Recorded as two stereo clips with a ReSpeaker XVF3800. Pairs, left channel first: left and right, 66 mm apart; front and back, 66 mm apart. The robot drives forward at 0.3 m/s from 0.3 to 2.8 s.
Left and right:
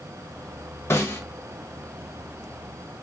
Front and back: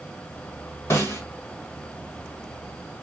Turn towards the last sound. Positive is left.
turn(degrees=65)